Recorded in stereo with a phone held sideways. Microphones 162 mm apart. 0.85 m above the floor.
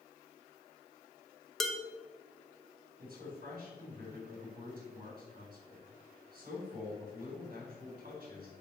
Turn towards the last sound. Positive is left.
turn(degrees=-60)  # may be behind; listen again after turning